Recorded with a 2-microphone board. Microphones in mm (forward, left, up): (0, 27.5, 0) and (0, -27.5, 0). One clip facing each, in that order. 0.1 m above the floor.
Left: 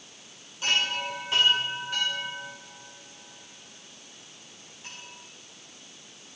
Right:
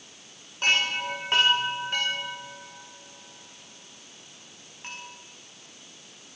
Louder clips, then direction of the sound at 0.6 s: Right 3 dB; 55° right (ahead or behind).